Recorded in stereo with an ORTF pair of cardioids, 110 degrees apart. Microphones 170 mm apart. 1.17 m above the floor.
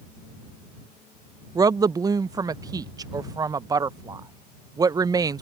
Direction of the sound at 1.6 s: 20° right.